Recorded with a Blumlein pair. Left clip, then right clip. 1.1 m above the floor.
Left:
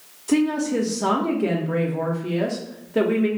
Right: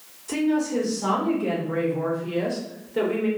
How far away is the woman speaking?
About 0.8 m.